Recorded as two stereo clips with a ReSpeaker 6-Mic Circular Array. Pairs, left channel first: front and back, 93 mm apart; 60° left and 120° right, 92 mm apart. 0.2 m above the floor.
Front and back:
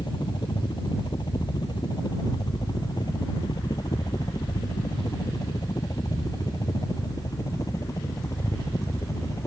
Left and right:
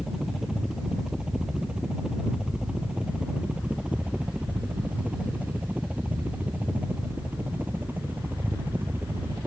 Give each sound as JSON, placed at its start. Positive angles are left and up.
{"t": 0.0, "sound": "a helicopter", "azimuth_deg": -35}